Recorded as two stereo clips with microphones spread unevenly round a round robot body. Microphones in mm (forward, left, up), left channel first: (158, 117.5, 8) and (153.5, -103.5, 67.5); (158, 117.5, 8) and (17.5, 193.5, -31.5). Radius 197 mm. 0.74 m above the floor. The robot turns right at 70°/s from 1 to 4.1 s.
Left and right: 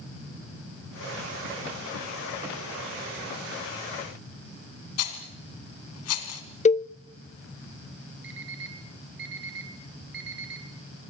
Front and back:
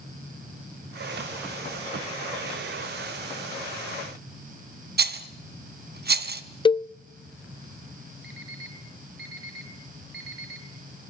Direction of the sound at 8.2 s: 155° right.